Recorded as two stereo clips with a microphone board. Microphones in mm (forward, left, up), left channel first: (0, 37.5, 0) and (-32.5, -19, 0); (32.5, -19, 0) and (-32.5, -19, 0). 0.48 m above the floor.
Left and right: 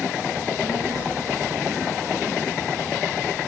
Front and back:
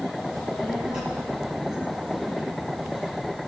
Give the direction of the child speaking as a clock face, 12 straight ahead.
3 o'clock.